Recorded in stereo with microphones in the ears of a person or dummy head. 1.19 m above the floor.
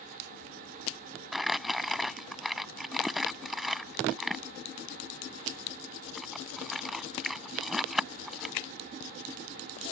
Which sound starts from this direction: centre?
Crumpling, at 1.3 s.